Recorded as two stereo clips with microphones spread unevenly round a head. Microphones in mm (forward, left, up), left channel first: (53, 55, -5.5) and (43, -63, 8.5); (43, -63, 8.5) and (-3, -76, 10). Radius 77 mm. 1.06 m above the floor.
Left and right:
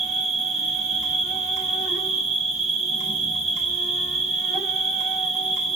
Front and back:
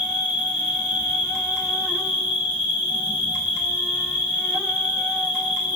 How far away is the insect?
About 1.0 m.